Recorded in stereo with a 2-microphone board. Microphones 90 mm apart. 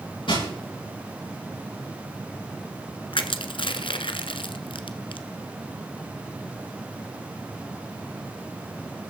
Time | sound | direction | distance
0.3 | crushing | 75° left (ahead or behind) | 10 m
3.1 | crushing | 75° left (ahead or behind) | 1.1 m